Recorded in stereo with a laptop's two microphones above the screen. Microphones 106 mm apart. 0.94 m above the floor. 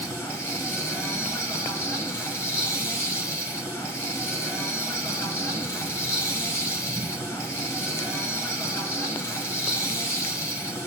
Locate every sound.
0.0 s a machine running: 25° left (ahead or behind), 4.5 m